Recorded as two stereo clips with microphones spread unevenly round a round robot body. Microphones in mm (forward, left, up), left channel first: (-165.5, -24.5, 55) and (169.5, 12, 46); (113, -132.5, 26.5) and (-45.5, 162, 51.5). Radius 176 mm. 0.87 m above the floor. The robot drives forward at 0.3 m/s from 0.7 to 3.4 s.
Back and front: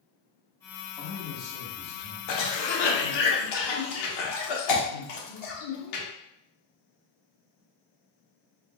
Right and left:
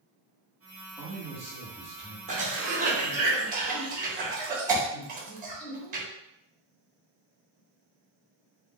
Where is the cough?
170° right, 1.1 m; by 6.0 s 175° right, 1.4 m.